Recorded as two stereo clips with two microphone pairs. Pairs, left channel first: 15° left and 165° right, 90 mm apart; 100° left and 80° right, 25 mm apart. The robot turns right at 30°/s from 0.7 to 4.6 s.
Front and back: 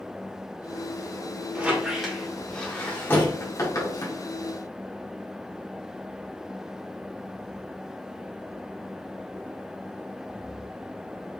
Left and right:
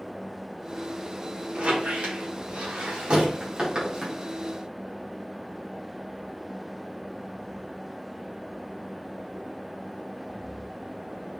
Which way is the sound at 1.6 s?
95° right.